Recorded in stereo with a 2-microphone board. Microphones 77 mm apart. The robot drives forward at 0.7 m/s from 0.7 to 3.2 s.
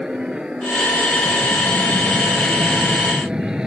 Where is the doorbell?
I don't hear a doorbell.